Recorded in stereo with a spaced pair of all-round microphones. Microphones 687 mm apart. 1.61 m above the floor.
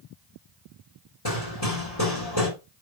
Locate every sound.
1.2 s hammering: 35° left (ahead or behind), 6 m